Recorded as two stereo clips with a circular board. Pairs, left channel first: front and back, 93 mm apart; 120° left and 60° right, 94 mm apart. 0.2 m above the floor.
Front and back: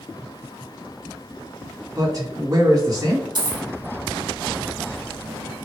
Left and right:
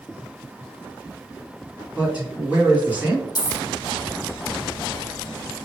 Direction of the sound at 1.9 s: 130° right.